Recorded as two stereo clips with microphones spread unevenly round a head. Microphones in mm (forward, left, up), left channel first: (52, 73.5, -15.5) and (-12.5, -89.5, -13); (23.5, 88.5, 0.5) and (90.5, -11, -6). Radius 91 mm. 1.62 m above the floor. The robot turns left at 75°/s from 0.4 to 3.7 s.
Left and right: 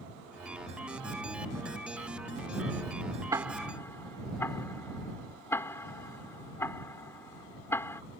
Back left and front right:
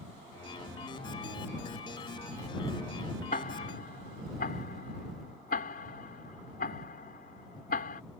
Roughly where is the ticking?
Behind.